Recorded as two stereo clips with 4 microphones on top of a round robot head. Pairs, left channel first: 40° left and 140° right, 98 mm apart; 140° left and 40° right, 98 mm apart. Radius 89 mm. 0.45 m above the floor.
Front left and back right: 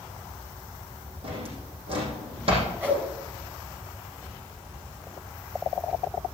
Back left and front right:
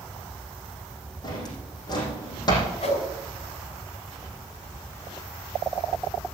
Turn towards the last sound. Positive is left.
turn(degrees=150)